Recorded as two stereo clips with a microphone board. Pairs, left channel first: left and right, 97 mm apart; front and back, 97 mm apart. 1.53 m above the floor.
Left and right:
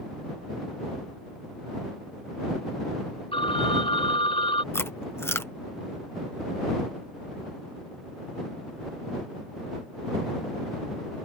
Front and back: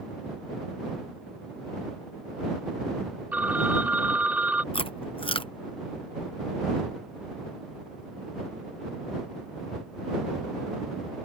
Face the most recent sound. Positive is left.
turn(degrees=25)